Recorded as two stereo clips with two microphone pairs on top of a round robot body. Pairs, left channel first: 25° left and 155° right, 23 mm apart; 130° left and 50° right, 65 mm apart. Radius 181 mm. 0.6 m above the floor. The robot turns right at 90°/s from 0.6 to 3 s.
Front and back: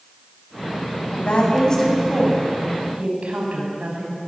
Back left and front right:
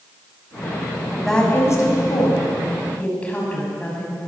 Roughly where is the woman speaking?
Ahead left.